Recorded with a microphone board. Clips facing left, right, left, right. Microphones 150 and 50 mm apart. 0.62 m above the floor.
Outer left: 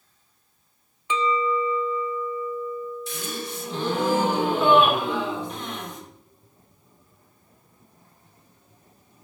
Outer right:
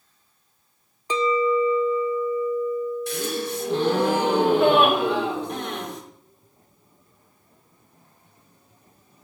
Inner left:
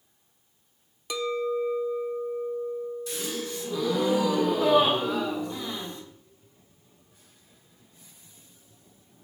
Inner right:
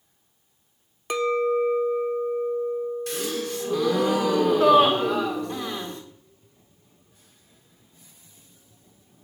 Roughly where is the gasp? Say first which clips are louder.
Outer right 6 dB, inner right 4 dB; right.